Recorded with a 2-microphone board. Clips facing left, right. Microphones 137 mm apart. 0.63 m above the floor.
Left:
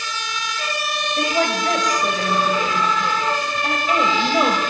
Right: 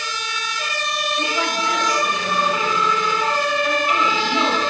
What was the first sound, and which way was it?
A woman speaking, 45° left (ahead or behind).